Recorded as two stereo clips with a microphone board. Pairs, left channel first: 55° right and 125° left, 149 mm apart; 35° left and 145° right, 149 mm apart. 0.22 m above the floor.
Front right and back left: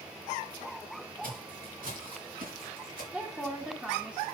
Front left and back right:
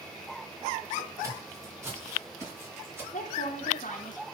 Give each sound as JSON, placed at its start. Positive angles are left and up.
{"t": 1.2, "sound": "footsteps", "azimuth_deg": 145, "distance_m": 5.5}
{"t": 3.1, "sound": "a woman speaking", "azimuth_deg": 40, "distance_m": 1.9}